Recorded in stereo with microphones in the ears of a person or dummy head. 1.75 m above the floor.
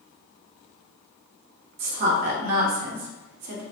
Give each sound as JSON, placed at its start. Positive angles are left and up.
{"t": 1.8, "sound": "a woman speaking", "side_deg": -50, "distance_m": 1.1}